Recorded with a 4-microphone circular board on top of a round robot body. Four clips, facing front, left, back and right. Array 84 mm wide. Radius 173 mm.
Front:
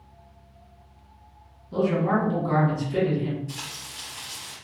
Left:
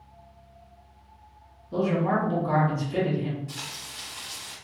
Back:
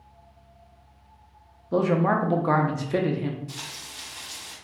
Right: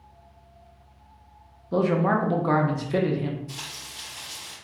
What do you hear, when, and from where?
1.7 s a man speaking: 145° right, 0.6 m
3.5 s frying: 110° left, 1.3 m